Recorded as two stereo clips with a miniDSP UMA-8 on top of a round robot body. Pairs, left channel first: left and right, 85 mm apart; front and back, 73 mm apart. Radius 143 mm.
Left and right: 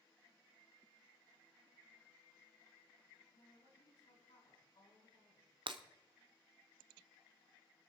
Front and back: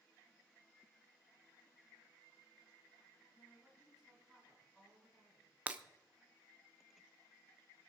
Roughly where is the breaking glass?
Right.